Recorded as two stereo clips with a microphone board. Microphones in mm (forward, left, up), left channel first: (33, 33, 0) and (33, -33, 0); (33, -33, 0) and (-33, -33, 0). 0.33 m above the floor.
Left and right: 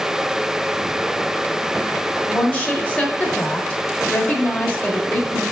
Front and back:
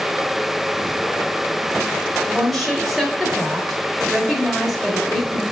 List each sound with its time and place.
2.3 s a woman speaking: 90° left, 1.1 m